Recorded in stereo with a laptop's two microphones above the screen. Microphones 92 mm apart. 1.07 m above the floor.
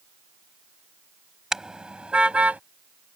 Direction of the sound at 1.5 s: 5° right (ahead or behind).